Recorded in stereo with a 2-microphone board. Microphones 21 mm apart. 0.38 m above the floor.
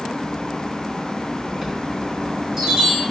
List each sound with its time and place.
1.6 s a chime: 25° right (ahead or behind), 4 m